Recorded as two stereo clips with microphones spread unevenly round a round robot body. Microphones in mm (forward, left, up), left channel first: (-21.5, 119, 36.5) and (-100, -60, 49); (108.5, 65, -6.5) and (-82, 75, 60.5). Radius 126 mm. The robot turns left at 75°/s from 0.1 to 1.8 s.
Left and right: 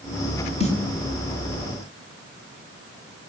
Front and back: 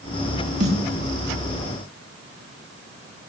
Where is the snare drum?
120° left, 5 m; by 0.8 s 110° left, 5 m.